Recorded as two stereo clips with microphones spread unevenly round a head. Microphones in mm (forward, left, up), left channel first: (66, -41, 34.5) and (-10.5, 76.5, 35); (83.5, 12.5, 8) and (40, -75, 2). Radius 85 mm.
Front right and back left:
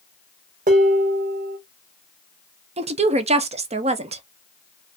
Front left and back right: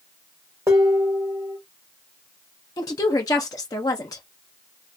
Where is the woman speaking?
115° left, 0.6 m.